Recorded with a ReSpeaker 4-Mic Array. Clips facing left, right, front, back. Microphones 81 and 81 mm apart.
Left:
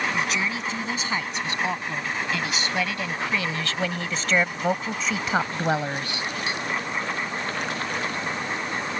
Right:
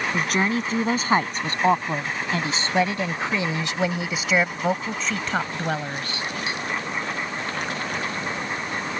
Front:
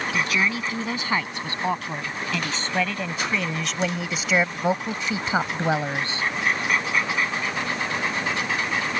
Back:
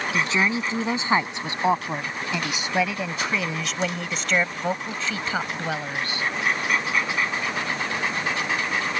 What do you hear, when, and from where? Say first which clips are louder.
0.1 s a woman speaking: right 4 dB, back 2 dB; 120° right; by 6.3 s 35° left